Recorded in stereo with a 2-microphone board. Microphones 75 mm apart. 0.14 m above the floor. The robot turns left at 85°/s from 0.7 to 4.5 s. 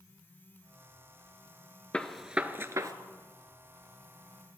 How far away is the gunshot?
About 0.7 m.